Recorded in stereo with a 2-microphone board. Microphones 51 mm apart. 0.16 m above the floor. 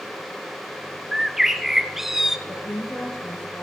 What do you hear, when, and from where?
1.1 s a bird: 5° right (ahead or behind), 0.8 m
2.5 s a woman speaking: 50° left (ahead or behind), 6.5 m